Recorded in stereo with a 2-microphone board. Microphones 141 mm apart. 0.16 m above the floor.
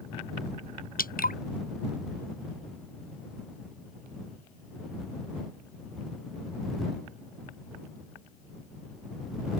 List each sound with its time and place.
1.0 s dripping: 90° left